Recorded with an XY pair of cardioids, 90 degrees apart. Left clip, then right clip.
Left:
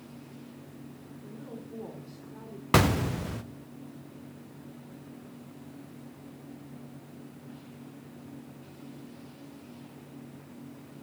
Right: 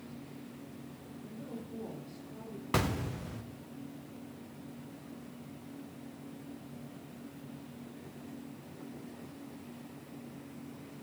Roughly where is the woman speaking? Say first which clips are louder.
Left 2 dB; ahead left.